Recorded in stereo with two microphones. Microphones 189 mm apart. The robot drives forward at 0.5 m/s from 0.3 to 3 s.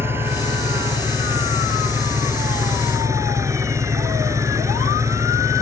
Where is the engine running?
10° right (ahead or behind); by 5.6 s 15° right (ahead or behind).